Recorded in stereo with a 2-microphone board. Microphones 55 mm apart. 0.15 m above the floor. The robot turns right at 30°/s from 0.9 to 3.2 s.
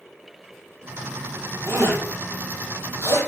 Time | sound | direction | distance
1.7 | a zipper | 70° right (ahead or behind) | 3.5 m